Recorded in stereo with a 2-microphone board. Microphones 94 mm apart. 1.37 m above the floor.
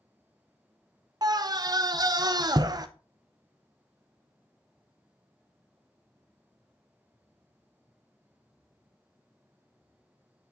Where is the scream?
45° right (ahead or behind), 0.5 m.